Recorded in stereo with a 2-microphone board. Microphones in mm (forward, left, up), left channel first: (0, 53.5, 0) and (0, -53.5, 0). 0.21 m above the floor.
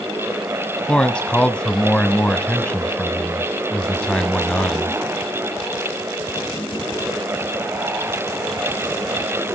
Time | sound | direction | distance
0.9 | a man speaking | 10° left (ahead or behind) | 1.1 m